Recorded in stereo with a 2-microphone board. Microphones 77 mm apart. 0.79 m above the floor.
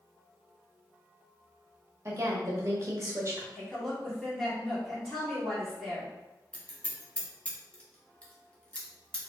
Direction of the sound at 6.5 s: 15° left (ahead or behind).